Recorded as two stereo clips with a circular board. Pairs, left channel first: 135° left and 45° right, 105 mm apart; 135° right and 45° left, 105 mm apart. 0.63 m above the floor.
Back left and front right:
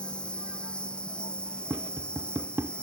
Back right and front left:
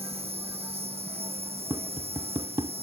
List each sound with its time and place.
0.0 s an insect: 55° left
1.7 s tapping: 15° left